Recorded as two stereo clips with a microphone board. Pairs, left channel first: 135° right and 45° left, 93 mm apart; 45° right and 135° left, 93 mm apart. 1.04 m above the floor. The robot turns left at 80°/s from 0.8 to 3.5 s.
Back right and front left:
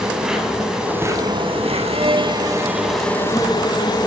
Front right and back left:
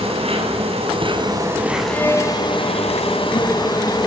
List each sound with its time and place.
0.0 s an insect: 130° left, 8.5 m; by 4.1 s 85° right, 8.5 m
1.9 s a violin: 30° left, 5.5 m; by 4.0 s 100° right, 5.5 m